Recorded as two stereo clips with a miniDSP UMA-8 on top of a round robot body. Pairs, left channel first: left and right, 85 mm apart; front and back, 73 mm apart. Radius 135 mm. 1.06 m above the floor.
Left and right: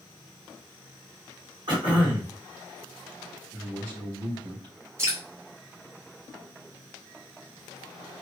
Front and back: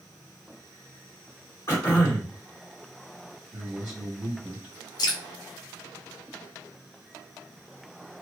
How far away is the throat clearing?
About 2 m.